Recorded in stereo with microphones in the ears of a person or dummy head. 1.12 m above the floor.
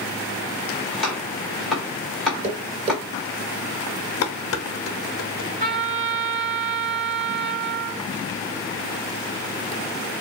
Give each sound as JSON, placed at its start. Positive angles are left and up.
{"t": 0.9, "sound": "chopping", "side_deg": 0, "distance_m": 1.7}
{"t": 2.4, "sound": "tapping", "side_deg": -35, "distance_m": 2.5}
{"t": 4.2, "sound": "dishes clattering", "side_deg": 65, "distance_m": 0.7}
{"t": 5.6, "sound": "a trumpet", "side_deg": -35, "distance_m": 2.5}